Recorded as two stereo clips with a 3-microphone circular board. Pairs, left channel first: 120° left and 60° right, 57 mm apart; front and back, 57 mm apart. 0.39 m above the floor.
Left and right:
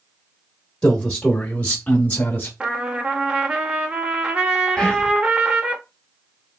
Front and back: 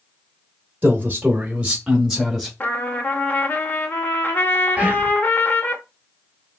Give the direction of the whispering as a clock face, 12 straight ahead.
6 o'clock.